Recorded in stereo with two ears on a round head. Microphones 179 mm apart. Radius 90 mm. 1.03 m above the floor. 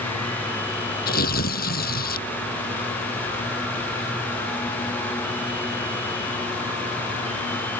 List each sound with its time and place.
1.1 s tearing paper: 50° left (ahead or behind)